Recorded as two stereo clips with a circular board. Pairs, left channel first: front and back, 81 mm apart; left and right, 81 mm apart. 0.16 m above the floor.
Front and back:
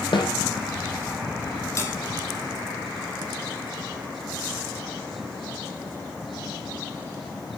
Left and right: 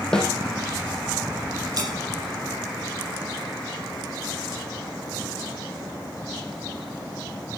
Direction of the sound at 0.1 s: 10° left.